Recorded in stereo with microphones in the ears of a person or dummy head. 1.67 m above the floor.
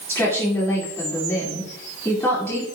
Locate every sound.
0.1 s a woman speaking: 10° left (ahead or behind), 4.5 m